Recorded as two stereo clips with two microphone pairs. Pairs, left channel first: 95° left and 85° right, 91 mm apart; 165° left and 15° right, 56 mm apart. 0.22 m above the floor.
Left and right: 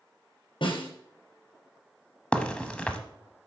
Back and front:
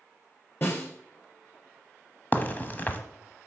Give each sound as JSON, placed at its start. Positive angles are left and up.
{"t": 0.6, "sound": "a snare drum", "azimuth_deg": 120, "distance_m": 3.0}
{"t": 2.3, "sound": "a crack", "azimuth_deg": 165, "distance_m": 1.0}